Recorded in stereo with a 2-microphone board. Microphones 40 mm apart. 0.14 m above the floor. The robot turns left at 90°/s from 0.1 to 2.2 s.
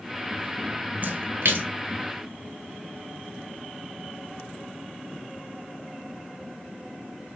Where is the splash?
45° right (ahead or behind), 0.7 m; by 1.7 s 55° right (ahead or behind), 0.7 m.